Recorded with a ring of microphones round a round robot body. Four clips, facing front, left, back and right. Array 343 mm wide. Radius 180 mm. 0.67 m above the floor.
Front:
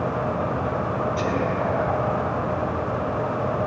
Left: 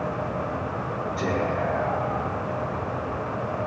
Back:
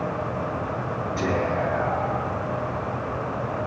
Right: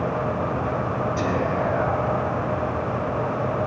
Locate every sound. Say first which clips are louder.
1.2 s whispering: even, front 1 dB; 105° right, 5.5 m